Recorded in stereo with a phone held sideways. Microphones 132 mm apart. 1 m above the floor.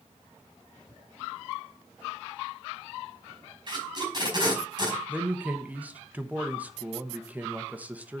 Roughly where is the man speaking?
Centre.